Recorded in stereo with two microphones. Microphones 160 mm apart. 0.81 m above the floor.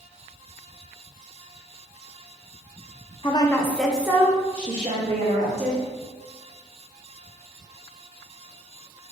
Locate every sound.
3.2 s a woman speaking: 30° left (ahead or behind), 0.7 m; by 5.8 s 45° right (ahead or behind), 1.5 m